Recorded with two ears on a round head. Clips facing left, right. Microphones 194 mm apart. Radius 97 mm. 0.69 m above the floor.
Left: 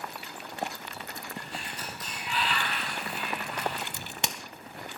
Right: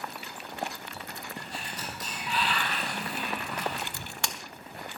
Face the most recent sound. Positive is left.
turn(degrees=20)  # may be behind; listen again after turning